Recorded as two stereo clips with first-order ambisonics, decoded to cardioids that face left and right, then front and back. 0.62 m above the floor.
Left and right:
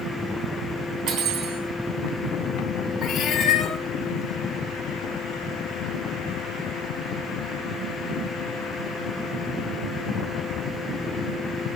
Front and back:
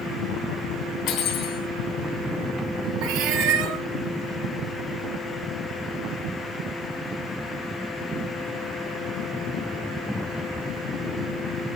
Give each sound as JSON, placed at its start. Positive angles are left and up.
{"t": 1.1, "sound": "cutlery clinking", "azimuth_deg": -50, "distance_m": 3.5}
{"t": 3.0, "sound": "a cat meowing", "azimuth_deg": 160, "distance_m": 1.7}